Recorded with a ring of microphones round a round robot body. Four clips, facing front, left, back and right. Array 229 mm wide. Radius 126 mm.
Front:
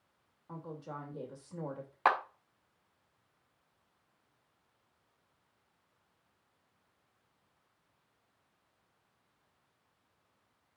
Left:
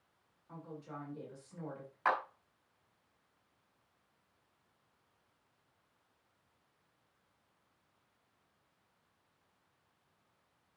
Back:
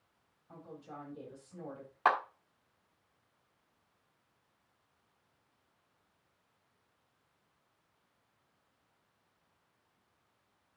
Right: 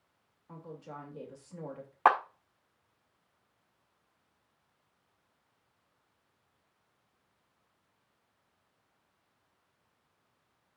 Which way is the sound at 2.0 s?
75° right.